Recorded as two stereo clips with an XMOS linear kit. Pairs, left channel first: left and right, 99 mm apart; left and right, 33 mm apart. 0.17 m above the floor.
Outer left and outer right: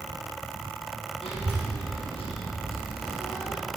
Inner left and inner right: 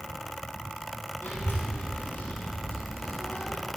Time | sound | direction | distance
1.2 | a child speaking | 75° left (ahead or behind) | 3.5 m